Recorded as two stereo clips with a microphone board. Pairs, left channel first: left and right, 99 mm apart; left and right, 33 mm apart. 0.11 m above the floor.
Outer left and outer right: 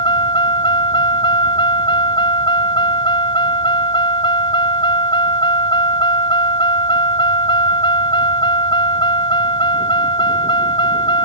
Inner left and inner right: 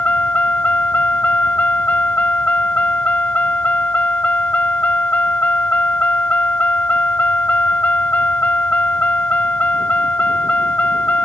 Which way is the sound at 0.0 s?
50° left (ahead or behind).